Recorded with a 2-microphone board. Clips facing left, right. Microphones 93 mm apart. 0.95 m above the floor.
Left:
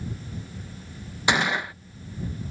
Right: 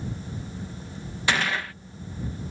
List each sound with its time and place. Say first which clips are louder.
1.3 s a gunshot: left 2 dB; 20° left (ahead or behind)